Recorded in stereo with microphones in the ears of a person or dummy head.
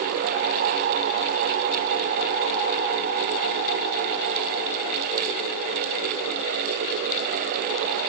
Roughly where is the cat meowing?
I don't hear a cat meowing.